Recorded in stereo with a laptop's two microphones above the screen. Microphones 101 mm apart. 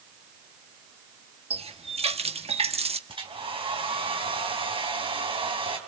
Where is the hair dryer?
60° right (ahead or behind), 2.5 m.